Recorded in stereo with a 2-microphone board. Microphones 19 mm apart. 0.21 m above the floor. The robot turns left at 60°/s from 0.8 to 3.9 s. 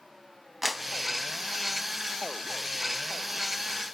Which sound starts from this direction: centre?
A clap, at 0.6 s.